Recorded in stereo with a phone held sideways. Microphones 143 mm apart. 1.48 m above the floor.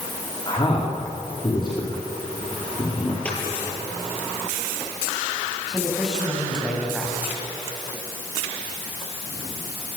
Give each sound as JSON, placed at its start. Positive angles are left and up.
{"t": 0.5, "sound": "a man speaking", "side_deg": 35, "distance_m": 4.0}
{"t": 3.2, "sound": "a dropped coin", "side_deg": 10, "distance_m": 9.5}
{"t": 5.7, "sound": "a man speaking", "side_deg": 0, "distance_m": 8.0}